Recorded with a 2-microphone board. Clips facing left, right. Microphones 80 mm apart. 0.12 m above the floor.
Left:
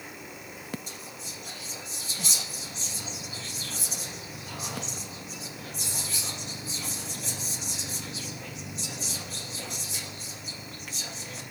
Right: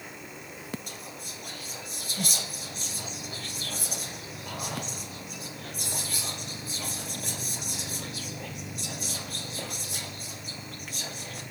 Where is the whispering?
50° right (ahead or behind), 4 m.